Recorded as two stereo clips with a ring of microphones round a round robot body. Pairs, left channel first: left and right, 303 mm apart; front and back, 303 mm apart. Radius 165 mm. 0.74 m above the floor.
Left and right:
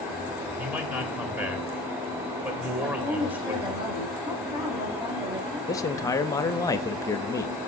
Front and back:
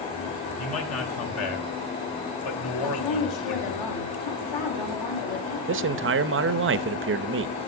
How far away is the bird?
I don't hear a bird.